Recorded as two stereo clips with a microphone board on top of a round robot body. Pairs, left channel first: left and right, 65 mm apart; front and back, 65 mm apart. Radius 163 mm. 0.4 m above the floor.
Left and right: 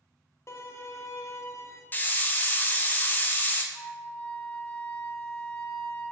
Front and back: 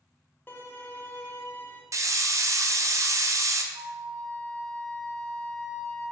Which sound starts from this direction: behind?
A flute, at 3.7 s.